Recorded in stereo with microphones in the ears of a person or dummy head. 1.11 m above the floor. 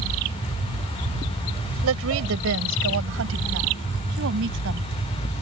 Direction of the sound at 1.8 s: 70° right (ahead or behind).